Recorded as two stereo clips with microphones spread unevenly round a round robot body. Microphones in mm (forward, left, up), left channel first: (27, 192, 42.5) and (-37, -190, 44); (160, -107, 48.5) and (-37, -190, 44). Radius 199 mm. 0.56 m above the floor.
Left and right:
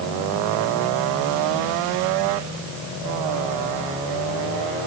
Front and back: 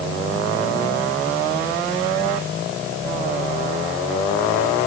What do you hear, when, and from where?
Only background noise.